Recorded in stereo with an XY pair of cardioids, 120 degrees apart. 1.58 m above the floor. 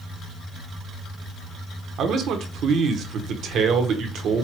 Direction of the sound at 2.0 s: 65° right.